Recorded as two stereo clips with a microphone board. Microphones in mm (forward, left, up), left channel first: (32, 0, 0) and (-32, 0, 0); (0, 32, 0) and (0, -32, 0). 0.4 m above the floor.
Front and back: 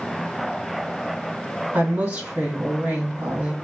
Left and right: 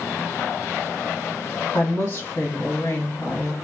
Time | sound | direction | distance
1.7 | a woman speaking | 120° left | 2 m